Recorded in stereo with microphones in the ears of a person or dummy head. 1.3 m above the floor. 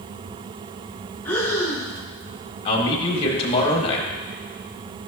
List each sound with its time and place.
1.2 s breathing: 10° left (ahead or behind), 1.1 m
2.6 s a man speaking: 30° left (ahead or behind), 1.8 m